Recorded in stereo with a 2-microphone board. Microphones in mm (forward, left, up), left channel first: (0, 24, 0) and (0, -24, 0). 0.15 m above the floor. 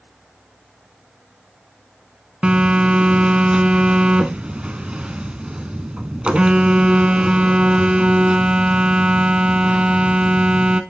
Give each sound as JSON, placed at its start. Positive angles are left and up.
{"t": 2.4, "sound": "a phone buzzing", "side_deg": -25, "distance_m": 0.8}